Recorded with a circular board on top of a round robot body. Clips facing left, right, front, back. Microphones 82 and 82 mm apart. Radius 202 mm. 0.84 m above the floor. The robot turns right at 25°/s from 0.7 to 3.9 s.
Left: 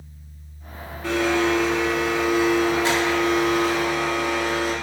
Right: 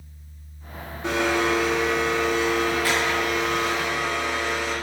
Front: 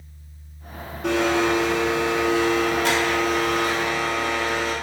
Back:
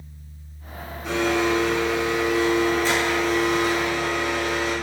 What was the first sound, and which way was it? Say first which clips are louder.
A blender: left 2 dB, front 2 dB; 20° right.